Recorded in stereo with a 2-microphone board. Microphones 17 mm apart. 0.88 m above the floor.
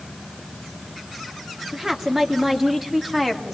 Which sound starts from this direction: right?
A woman speaking, at 1.7 s.